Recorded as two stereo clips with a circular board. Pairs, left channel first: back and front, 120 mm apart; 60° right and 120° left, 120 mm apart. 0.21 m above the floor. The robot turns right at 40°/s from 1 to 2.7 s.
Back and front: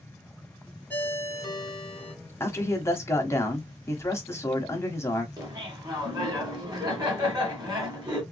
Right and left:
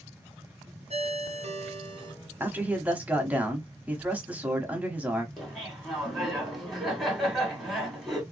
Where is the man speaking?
160° left, 1.0 m; by 5.3 s 175° left, 1.0 m.